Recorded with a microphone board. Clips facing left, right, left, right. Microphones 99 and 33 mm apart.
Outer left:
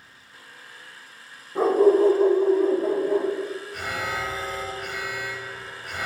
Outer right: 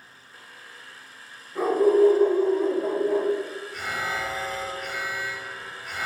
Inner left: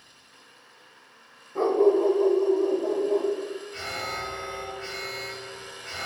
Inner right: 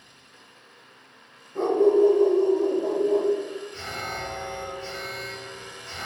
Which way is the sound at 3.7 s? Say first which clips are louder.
Outer right 3 dB, inner left 2 dB; 50° left (ahead or behind).